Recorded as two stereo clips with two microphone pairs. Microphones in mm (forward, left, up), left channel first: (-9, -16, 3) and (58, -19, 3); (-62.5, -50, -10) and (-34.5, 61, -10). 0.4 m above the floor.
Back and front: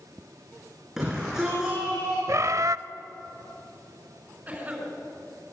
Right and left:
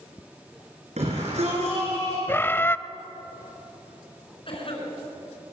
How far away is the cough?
About 5.5 m.